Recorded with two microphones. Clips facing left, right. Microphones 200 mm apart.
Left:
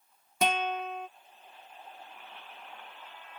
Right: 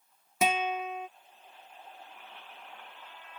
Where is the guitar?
5° right (ahead or behind).